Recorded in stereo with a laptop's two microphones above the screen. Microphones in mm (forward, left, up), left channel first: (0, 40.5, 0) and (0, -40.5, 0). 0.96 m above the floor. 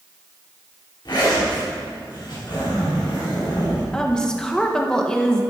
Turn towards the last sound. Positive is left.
turn(degrees=10)  # may be behind; listen again after turning